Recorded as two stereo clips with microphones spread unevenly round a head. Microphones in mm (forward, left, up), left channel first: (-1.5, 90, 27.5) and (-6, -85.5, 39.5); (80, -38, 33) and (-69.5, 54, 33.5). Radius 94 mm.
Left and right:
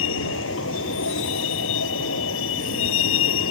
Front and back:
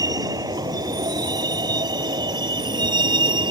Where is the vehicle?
80° left; by 3.5 s 85° left.